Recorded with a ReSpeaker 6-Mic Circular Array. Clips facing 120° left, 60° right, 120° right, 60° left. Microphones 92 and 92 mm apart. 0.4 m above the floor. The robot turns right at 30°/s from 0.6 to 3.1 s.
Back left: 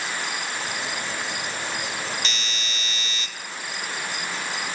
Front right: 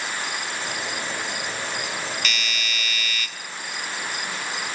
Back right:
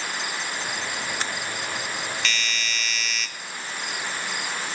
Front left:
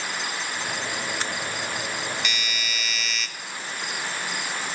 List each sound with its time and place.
2.2 s a doorbell: 120° left, 1.3 m; by 3.3 s 145° left, 1.3 m